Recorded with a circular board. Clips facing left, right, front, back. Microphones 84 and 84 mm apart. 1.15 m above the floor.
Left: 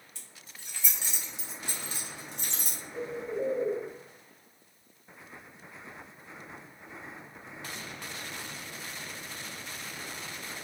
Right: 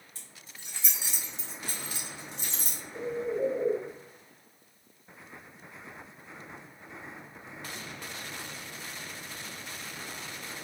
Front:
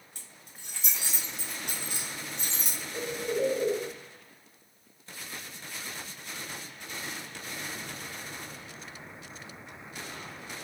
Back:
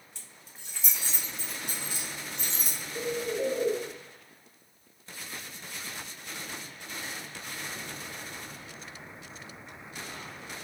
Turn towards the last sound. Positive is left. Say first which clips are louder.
# right 3 dB, even
turn(degrees=10)